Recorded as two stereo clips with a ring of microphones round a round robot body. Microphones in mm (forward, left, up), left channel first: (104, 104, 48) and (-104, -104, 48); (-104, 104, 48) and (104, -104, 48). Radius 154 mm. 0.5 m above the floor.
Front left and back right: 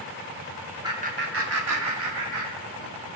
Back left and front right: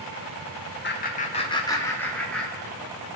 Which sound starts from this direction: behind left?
Laughter, at 0.8 s.